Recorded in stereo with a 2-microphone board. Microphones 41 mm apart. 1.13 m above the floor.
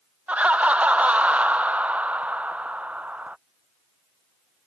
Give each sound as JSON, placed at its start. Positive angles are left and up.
{"t": 0.3, "sound": "laughter", "side_deg": -30}